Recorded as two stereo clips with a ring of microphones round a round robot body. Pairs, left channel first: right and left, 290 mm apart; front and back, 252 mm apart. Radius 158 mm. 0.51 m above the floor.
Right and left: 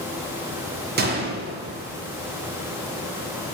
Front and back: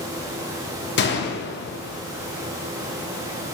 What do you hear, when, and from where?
1.0 s a gunshot: 40° left, 0.6 m